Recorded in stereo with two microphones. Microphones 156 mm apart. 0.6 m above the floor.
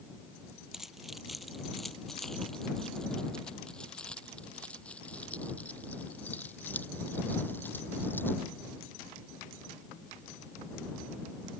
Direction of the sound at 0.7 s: Centre (ahead or behind).